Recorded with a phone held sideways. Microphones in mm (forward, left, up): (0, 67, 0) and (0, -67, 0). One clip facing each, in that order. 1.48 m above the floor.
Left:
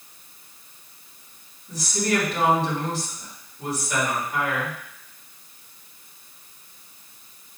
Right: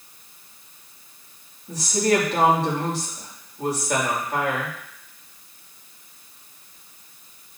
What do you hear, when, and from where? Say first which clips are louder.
1.7 s a woman speaking: right 4 dB; 80° right, 3.5 m